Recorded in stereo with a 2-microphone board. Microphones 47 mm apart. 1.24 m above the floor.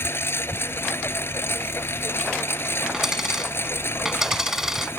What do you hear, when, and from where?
0.0 s a lawn mower: 55° left (ahead or behind)
2.9 s a dropped coin: 10° right (ahead or behind)